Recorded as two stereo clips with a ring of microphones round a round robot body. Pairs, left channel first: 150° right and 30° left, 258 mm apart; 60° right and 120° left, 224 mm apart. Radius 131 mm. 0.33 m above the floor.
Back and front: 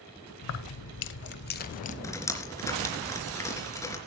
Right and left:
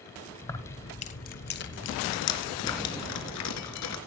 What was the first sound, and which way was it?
Keys jangling, 140° right.